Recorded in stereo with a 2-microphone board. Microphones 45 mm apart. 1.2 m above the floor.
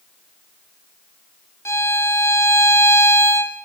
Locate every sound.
1.6 s a violin: 80° left, 3 m